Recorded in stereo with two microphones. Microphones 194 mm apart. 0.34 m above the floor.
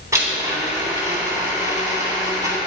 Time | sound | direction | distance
0.1 | a blender | 15° right (ahead or behind) | 3.5 m